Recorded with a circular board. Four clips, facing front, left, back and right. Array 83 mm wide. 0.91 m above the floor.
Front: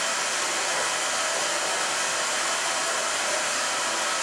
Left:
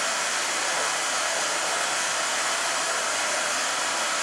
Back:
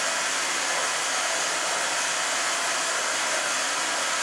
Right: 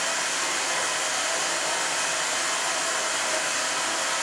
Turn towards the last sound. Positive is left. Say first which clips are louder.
# left 1 dB, even
turn(degrees=140)